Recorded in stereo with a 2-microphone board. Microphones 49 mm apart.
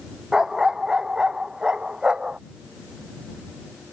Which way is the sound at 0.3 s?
10° right (ahead or behind).